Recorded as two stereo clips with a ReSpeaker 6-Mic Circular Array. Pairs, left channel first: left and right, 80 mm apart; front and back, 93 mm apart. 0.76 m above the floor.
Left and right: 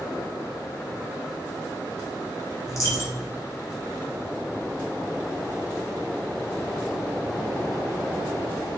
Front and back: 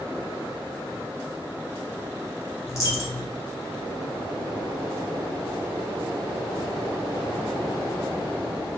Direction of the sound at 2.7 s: 45° left.